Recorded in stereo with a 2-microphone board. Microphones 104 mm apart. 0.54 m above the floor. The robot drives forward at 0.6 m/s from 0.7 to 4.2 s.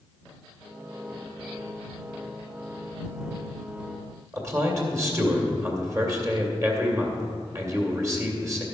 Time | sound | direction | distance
4.3 | a man speaking | 30° right (ahead or behind) | 2 m